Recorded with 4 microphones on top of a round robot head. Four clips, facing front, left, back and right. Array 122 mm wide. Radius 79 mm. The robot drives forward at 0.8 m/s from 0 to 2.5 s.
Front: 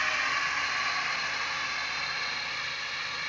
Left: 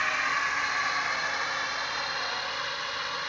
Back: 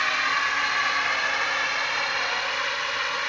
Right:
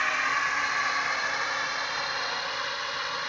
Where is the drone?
170° right; by 3.3 s 175° right.